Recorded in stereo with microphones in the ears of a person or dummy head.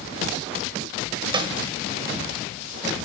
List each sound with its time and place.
1.3 s a snare drum: 15° right (ahead or behind), 1.7 m